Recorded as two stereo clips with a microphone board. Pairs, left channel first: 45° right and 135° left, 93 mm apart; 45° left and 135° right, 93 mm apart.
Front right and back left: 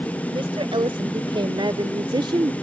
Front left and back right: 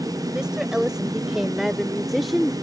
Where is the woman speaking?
145° left; by 2.5 s 135° left.